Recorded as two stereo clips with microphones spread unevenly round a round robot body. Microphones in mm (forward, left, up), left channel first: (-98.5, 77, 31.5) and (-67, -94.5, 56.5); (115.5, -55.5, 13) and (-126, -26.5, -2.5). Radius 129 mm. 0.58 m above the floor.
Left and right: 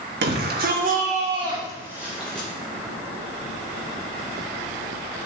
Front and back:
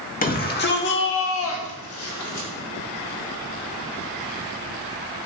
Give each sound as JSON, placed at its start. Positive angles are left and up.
{"t": 0.2, "sound": "a shout", "azimuth_deg": -60, "distance_m": 1.9}